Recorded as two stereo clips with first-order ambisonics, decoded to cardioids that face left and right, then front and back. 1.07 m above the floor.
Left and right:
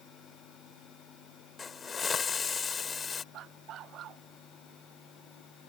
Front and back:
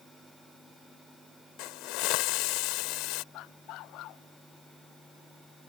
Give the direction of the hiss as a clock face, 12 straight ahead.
11 o'clock.